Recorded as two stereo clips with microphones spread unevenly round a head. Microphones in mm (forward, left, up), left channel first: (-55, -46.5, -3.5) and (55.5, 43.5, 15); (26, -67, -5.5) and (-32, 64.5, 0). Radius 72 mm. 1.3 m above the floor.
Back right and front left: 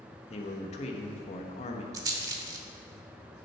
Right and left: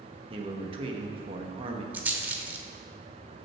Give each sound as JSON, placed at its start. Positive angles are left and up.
{"t": 0.3, "sound": "a man speaking", "azimuth_deg": 170, "distance_m": 1.5}
{"t": 1.9, "sound": "a rattle", "azimuth_deg": 55, "distance_m": 1.0}